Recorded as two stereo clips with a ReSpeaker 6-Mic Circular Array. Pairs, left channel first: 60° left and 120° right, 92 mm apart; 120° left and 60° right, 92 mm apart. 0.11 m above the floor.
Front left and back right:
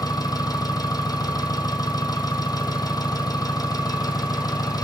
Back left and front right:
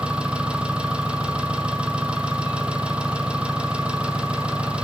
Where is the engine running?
20° left, 0.8 m.